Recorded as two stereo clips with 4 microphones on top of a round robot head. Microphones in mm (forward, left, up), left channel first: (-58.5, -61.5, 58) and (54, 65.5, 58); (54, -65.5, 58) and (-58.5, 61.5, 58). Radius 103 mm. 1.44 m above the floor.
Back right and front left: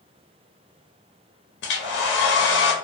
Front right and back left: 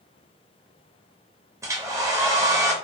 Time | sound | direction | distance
1.6 | a hair dryer | 155° right | 0.6 m